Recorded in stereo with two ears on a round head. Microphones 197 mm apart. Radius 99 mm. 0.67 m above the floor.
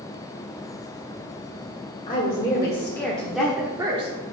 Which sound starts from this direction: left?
A woman speaking, at 2.1 s.